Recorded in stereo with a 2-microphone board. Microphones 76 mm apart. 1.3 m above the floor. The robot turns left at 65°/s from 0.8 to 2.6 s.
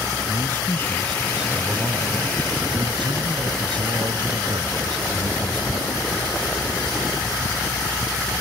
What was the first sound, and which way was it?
A man speaking, 30° left.